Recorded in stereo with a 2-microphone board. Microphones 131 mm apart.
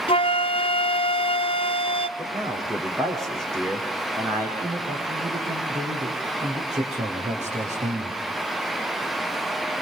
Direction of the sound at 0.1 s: 50° left (ahead or behind).